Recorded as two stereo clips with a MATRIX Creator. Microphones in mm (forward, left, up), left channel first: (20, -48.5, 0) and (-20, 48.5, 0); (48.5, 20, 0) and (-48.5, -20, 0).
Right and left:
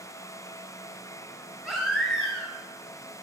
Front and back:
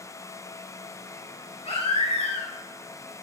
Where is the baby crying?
25° left, 4 m.